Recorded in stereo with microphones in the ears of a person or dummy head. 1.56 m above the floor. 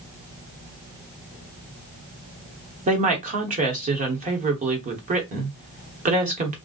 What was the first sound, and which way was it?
A woman speaking, 35° right (ahead or behind).